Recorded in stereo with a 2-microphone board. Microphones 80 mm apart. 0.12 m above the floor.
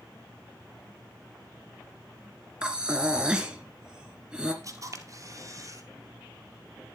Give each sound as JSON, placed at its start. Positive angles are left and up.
{"t": 2.6, "sound": "breathing", "side_deg": -10, "distance_m": 1.8}
{"t": 4.6, "sound": "a camera shutter", "side_deg": -45, "distance_m": 1.9}